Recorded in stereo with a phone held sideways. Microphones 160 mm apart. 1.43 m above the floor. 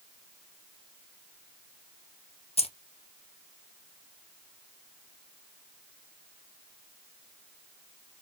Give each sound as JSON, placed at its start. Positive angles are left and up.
{"t": 2.6, "sound": "keys jangling", "side_deg": 40, "distance_m": 0.6}